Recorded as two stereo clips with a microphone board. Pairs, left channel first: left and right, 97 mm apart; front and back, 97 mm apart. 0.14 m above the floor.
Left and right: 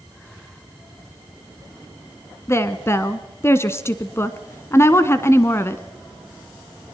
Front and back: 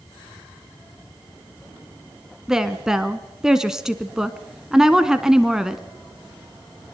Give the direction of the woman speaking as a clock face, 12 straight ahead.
9 o'clock.